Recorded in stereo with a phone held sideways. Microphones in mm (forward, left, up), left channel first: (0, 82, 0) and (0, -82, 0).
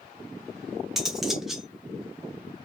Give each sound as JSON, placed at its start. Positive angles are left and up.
{"t": 1.0, "sound": "cutlery clinking", "side_deg": 0, "distance_m": 0.7}